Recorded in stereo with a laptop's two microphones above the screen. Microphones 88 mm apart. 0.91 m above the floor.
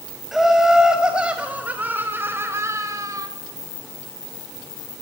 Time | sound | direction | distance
0.3 | laughter | centre (ahead or behind) | 5 m